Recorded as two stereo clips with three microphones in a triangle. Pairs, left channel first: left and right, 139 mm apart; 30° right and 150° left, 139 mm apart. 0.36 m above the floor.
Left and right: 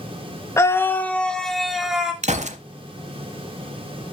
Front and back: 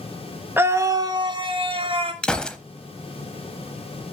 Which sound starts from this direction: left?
A scream, at 0.6 s.